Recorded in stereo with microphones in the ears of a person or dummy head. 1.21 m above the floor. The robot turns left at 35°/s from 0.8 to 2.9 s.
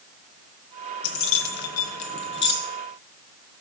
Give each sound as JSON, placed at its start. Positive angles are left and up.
{"t": 1.0, "sound": "keys jangling", "side_deg": 65, "distance_m": 0.5}